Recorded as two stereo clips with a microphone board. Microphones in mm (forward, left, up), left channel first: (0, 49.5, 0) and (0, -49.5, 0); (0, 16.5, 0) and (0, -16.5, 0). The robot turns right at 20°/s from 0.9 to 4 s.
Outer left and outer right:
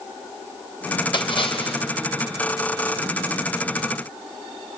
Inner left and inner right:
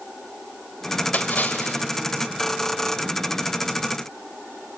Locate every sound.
1.1 s a splash: 50° left (ahead or behind), 3 m; by 1.8 s 65° left (ahead or behind), 3 m